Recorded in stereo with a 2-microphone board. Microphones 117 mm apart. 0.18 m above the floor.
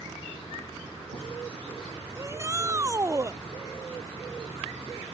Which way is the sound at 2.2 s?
25° right (ahead or behind).